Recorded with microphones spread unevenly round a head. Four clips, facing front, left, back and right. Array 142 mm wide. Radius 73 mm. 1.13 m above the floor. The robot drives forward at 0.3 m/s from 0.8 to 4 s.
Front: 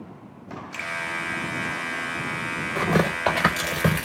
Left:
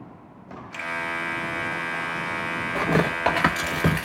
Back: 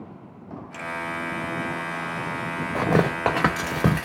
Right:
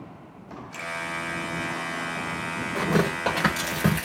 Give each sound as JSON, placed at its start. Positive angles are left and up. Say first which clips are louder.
{"t": 0.7, "sound": "a finger snap", "louder": "left 3 dB, back 2 dB", "azimuth_deg": 30, "distance_m": 1.0}
{"t": 2.8, "sound": "tearing paper", "louder": "left 1 dB, back 1 dB", "azimuth_deg": 170, "distance_m": 1.6}